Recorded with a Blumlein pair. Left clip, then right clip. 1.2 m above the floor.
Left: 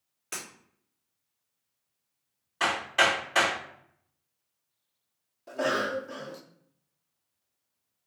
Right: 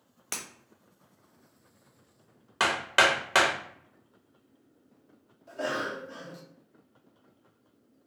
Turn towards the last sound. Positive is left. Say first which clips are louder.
# left 4 dB
turn(degrees=20)